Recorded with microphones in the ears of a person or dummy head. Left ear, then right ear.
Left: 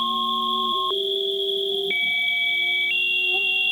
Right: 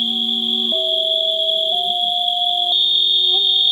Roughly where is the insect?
Centre.